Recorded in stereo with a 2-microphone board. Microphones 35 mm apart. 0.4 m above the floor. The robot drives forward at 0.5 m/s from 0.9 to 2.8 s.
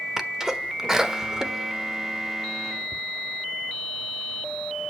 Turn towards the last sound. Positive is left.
turn(degrees=-15)  # may be behind; listen again after turning